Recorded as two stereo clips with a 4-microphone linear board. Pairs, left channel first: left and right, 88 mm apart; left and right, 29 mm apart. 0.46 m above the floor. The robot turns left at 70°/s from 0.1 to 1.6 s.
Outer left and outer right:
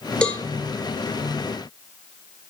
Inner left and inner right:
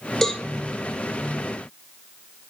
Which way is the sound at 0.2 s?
10° left (ahead or behind).